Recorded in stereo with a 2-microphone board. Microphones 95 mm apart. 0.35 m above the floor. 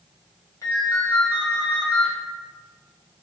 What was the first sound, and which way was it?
A ringtone, 35° left (ahead or behind).